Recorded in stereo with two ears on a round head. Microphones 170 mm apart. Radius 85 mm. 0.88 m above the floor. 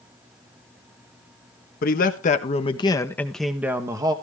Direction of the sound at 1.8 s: 50° left (ahead or behind).